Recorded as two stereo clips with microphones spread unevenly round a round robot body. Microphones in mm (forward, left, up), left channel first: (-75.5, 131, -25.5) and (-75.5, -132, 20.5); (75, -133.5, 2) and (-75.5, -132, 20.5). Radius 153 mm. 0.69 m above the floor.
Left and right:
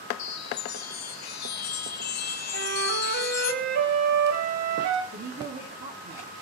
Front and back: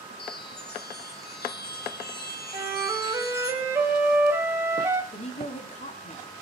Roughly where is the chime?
Ahead left.